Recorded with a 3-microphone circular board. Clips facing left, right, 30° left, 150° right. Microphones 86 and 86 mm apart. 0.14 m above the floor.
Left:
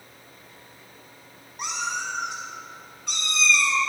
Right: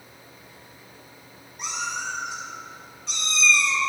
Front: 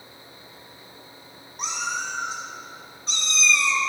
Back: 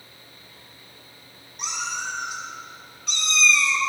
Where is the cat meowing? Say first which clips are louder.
Left 1 dB, front 2 dB; 75° left, 3.5 m; by 3.8 s 90° left, 1.3 m.